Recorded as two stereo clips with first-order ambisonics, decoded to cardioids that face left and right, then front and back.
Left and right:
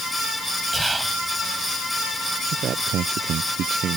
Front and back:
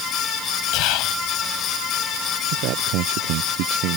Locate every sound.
0.7 s whispering: 10° right
2.5 s a man speaking: 150° right